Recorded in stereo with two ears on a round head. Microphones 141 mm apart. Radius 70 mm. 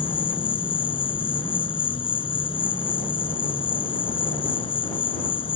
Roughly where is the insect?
Left.